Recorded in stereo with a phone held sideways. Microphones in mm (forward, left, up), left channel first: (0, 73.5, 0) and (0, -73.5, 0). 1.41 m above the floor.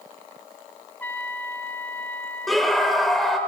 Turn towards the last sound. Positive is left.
turn(degrees=0)  # may be behind; listen again after turning